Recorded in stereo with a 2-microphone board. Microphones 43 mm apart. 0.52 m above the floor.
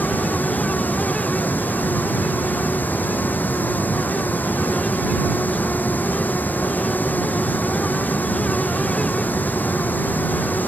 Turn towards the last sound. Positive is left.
turn(degrees=45)  # may be behind; listen again after turning